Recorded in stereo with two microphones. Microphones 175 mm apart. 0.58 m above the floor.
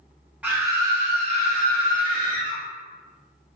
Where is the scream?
10° right (ahead or behind), 0.7 m; by 2.6 s 60° right (ahead or behind), 1.2 m.